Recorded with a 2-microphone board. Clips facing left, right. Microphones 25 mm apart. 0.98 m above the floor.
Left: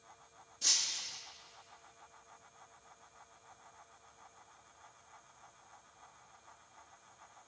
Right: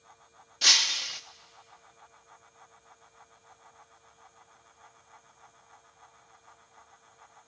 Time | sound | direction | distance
0.6 | breaking glass | 65° right (ahead or behind) | 0.6 m